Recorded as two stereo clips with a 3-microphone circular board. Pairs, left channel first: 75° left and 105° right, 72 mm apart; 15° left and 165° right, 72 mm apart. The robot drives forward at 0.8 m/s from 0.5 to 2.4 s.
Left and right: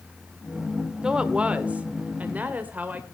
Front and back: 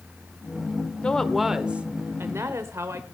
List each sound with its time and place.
1.0 s a woman speaking: 40° right, 1.1 m; by 3.0 s 155° right, 1.3 m